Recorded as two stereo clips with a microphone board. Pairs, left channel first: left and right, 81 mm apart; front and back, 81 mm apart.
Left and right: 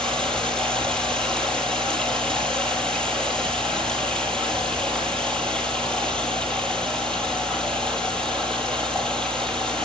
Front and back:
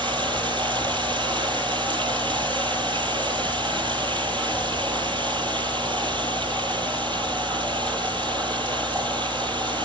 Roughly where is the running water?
Behind.